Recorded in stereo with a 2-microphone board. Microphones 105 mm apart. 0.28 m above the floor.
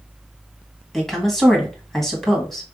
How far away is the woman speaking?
About 1.7 m.